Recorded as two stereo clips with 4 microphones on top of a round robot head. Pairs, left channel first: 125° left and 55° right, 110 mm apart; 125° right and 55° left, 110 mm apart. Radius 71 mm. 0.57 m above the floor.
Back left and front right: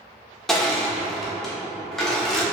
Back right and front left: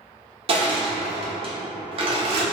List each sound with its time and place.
0.5 s crushing: 40° left, 1.3 m